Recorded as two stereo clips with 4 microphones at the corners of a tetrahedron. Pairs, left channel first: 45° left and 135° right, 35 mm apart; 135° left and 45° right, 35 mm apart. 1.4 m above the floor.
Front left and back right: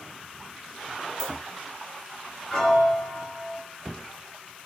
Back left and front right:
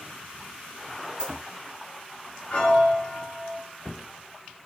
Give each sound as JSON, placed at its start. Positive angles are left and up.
{"t": 1.2, "sound": "a dropped coin", "azimuth_deg": 155, "distance_m": 0.8}
{"t": 2.5, "sound": "a piano", "azimuth_deg": 120, "distance_m": 1.4}